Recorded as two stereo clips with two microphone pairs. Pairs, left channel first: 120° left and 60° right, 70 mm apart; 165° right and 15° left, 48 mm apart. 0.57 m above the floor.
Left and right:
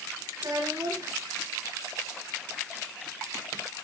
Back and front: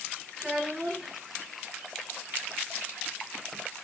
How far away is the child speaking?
About 8.5 m.